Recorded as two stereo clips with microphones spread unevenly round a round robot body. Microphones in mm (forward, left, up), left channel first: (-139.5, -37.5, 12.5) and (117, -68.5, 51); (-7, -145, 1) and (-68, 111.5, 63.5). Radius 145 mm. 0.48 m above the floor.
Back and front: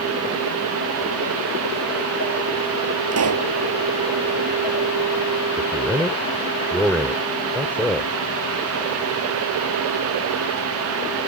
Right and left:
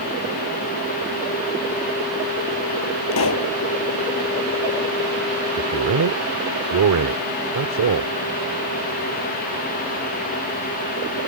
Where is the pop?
35° right.